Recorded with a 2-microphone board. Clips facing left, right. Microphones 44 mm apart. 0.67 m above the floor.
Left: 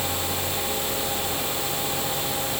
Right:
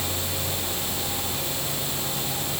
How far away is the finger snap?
No finger snap in this recording.